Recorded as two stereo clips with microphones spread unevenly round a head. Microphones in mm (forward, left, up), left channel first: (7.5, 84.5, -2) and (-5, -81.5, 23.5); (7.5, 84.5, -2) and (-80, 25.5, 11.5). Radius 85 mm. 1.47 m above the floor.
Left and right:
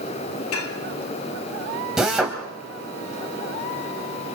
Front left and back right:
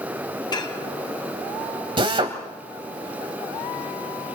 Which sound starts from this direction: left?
Dishes clattering, at 0.5 s.